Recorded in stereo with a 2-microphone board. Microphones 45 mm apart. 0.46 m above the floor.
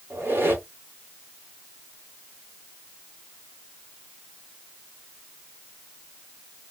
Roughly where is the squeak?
Right.